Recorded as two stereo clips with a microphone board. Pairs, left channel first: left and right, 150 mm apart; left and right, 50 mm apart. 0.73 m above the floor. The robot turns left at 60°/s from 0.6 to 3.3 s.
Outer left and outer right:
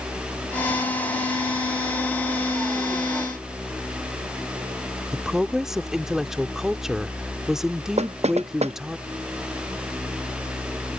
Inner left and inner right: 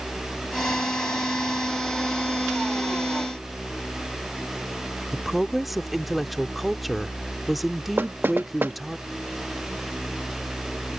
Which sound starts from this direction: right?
Knocking, at 8.0 s.